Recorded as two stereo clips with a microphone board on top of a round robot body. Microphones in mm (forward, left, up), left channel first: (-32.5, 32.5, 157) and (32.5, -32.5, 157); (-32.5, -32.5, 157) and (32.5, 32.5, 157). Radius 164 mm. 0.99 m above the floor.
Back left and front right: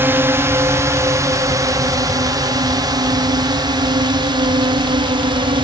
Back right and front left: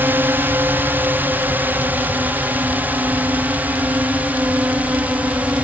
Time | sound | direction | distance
0.0 | a drone | 5° right | ?